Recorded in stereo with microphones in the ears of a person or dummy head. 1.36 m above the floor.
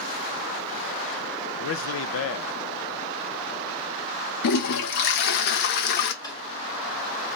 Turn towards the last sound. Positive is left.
turn(degrees=25)  # may be behind; listen again after turning